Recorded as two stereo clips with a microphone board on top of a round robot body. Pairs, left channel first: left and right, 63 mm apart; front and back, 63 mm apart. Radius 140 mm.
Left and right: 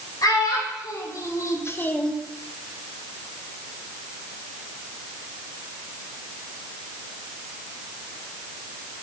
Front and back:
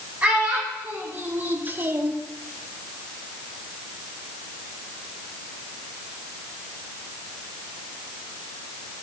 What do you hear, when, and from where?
0.2 s a child speaking: 115° left, 3 m; by 2.2 s straight behind, 0.8 m